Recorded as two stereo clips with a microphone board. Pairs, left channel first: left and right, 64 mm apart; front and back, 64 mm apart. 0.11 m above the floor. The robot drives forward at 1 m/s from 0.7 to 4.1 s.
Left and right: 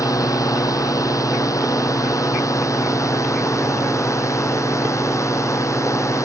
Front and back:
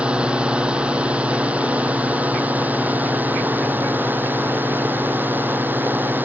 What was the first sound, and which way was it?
A drone, 110° left.